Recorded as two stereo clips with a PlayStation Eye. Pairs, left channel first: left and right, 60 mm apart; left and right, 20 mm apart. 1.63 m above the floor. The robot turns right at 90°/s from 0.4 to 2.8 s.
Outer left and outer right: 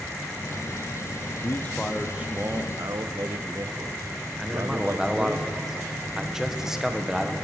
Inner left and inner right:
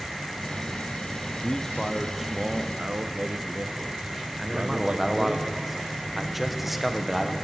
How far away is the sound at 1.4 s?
About 0.5 m.